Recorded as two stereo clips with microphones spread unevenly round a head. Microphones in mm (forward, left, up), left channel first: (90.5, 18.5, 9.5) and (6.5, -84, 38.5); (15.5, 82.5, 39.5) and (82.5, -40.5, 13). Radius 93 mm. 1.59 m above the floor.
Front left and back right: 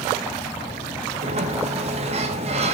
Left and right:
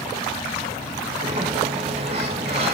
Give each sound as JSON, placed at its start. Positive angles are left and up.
{"t": 1.2, "sound": "a sliding door", "azimuth_deg": -125, "distance_m": 1.2}